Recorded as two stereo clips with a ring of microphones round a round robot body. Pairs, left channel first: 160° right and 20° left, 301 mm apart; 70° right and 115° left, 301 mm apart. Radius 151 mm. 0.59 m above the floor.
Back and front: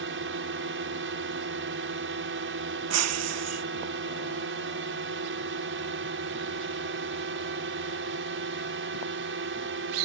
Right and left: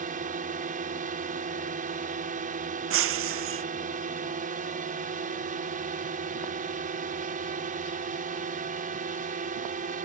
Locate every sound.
0.0 s a drone: 55° left
2.9 s breaking glass: 65° left